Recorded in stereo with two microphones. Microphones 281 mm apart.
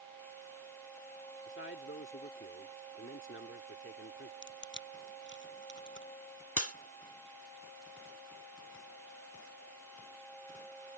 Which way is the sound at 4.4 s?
40° left (ahead or behind).